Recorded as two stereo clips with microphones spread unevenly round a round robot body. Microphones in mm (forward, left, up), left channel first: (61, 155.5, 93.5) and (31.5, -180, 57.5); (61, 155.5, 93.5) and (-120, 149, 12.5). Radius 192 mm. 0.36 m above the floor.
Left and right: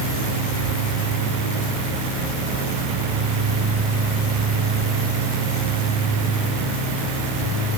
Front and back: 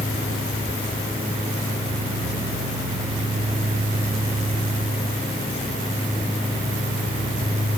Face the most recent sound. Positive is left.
No sound to turn to.